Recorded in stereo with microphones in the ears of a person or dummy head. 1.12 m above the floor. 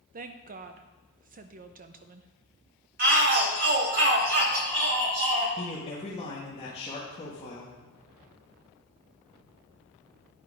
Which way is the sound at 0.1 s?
45° right (ahead or behind).